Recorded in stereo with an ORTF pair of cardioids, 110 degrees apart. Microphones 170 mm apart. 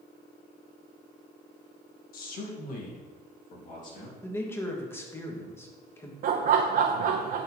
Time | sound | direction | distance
2.1 | a man speaking | 60° left | 1.5 m
4.2 | a man speaking | 15° left | 1.5 m
6.2 | laughter | 60° right | 0.8 m